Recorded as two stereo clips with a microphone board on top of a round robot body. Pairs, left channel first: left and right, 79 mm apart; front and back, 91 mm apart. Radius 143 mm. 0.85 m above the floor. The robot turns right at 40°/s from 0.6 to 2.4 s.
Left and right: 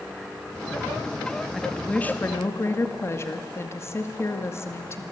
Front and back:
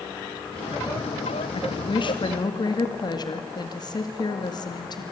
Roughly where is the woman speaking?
Ahead.